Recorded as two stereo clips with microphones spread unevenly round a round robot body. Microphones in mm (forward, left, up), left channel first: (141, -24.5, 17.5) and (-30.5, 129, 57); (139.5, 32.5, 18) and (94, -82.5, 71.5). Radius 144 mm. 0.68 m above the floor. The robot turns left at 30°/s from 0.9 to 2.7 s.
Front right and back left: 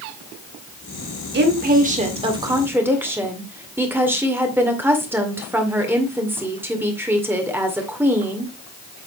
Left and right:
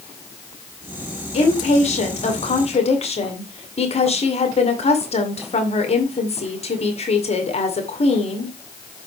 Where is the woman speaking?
95° left, 2 m; by 8.5 s 55° left, 2 m.